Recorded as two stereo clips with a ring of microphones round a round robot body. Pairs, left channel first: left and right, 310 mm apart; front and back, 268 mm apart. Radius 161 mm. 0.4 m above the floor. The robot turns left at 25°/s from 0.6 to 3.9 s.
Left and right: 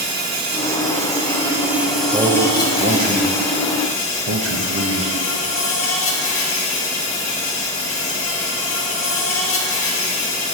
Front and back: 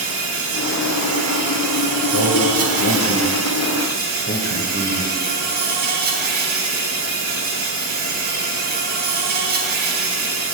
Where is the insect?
145° right, 3 m; by 10.5 s 130° left, 3 m.